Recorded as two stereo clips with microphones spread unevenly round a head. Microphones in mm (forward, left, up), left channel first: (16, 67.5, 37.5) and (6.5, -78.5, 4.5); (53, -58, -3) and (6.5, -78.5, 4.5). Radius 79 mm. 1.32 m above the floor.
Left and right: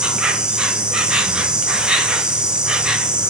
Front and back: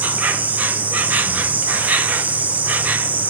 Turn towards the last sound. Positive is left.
turn(degrees=-135)